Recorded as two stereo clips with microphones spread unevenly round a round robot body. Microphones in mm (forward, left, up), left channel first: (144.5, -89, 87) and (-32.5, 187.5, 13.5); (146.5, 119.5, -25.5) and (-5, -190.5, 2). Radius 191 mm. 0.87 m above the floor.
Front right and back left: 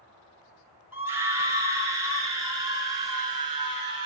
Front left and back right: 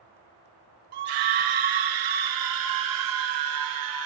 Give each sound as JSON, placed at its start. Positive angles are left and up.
{"t": 0.9, "sound": "a scream", "azimuth_deg": -155, "distance_m": 3.0}